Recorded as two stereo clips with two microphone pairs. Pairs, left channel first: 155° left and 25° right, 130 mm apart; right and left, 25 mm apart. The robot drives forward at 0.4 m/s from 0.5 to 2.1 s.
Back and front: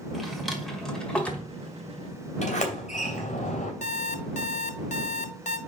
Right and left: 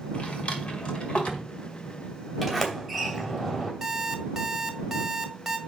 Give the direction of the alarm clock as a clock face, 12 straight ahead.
7 o'clock.